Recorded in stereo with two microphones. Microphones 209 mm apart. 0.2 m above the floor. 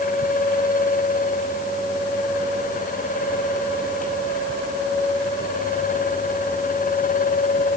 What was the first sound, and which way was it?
Only background noise.